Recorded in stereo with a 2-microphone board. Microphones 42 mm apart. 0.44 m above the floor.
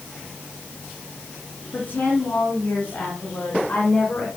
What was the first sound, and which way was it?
A woman speaking, 40° left (ahead or behind).